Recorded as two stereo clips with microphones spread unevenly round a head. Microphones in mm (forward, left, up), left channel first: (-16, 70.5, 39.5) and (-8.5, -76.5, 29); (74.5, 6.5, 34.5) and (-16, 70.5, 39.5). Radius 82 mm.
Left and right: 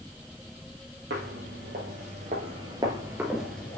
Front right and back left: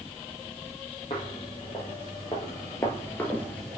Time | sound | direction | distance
1.1 | footsteps | 90° right | 2.5 m